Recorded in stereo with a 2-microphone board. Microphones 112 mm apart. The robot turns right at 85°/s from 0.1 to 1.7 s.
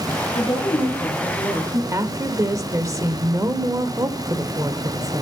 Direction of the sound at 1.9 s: 30° right (ahead or behind).